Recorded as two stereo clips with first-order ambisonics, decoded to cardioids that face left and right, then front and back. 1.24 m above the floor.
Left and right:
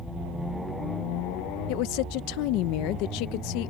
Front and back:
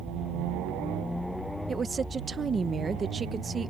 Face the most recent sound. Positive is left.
turn(degrees=110)